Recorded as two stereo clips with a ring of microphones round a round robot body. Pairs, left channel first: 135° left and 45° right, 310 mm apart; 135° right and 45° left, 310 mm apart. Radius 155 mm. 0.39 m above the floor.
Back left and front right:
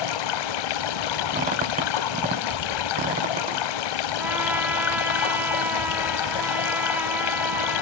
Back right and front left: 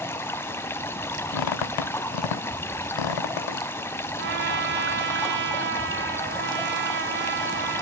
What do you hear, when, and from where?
0.0 s running water: 140° left, 0.8 m
1.3 s a squeak: 115° right, 0.8 m
4.2 s a trumpet: 35° left, 1.7 m